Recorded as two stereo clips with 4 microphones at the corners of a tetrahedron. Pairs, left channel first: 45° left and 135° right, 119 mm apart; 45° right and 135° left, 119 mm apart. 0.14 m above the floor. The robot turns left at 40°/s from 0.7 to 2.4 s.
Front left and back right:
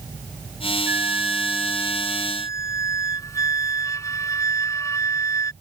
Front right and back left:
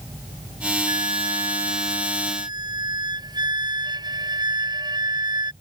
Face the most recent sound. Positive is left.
turn(degrees=100)